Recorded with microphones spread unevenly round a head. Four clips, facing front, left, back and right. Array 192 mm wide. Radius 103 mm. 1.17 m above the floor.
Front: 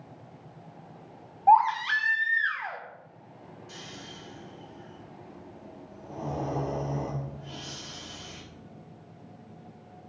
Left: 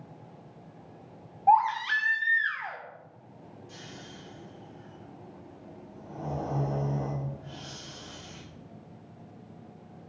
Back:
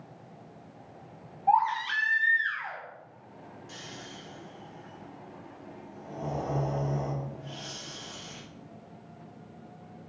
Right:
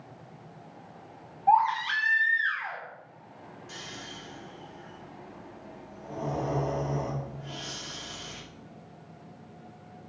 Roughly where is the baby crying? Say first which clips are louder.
Left 1 dB, front 5 dB; ahead.